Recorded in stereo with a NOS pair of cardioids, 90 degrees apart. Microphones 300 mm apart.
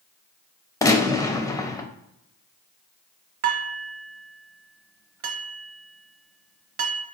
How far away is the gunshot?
About 0.5 m.